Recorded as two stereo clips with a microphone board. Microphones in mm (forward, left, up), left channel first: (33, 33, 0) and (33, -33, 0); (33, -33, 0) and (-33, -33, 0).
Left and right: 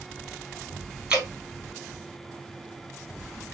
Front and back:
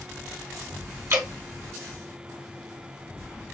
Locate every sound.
1.1 s dripping: 160° right, 1.3 m